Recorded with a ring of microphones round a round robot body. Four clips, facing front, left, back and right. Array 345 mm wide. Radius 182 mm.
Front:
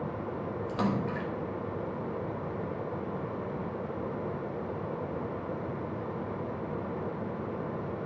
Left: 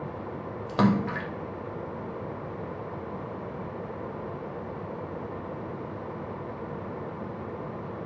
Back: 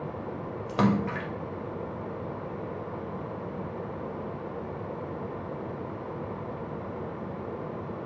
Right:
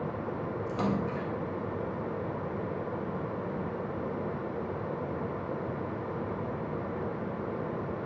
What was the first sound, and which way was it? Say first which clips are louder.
A splash: left 8 dB, back 6 dB; 130° left.